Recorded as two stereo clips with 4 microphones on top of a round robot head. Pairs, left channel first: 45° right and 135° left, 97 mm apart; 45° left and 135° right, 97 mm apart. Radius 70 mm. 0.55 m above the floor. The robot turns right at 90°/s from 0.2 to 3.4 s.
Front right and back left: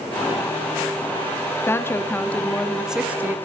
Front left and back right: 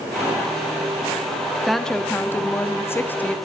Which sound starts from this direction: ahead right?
A woman speaking, at 1.7 s.